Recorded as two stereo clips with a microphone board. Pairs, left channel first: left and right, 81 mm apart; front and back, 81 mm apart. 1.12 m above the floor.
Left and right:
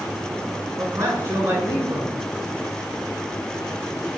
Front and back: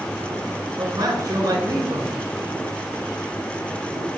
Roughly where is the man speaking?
Behind right.